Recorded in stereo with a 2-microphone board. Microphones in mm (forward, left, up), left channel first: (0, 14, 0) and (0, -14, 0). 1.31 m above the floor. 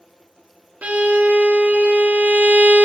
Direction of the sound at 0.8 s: 55° right (ahead or behind).